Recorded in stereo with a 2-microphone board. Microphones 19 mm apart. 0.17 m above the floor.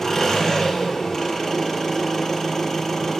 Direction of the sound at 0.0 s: 25° left (ahead or behind).